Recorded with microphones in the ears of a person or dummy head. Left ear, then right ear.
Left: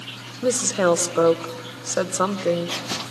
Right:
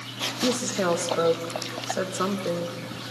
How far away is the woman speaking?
About 0.9 m.